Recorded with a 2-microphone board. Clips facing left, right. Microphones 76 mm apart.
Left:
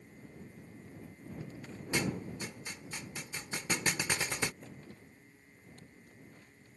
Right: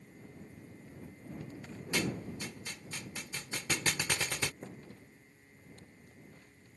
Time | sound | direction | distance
1.9 | a thud | 20° left (ahead or behind) | ?
4.6 | a thud | 30° right (ahead or behind) | ?